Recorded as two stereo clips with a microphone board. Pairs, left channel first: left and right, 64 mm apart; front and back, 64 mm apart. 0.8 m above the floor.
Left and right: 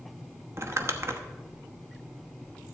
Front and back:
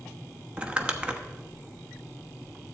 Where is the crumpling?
110° right, 0.9 m.